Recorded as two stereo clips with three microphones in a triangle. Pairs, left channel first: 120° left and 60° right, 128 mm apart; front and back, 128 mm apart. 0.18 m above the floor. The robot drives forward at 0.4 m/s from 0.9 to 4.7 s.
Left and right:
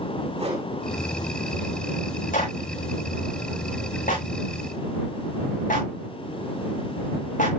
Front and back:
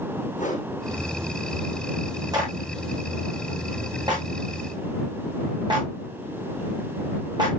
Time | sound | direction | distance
0.4 | a whoosh | 20° right | 7 m
2.3 | a clap | 120° left | 9.5 m